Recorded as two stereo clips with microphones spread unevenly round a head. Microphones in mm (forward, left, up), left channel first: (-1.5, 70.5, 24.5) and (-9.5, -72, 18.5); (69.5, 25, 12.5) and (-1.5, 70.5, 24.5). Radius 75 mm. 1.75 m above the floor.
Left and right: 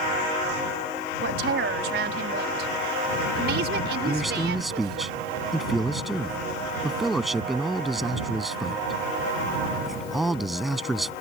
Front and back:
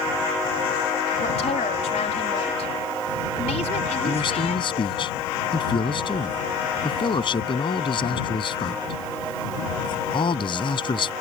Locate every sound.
1.2 s a woman speaking: 70° right
4.0 s a man speaking: 5° right